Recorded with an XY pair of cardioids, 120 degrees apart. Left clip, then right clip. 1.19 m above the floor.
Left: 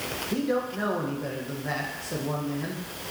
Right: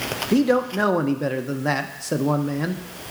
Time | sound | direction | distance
0.3 | a man speaking | 60° right | 0.8 m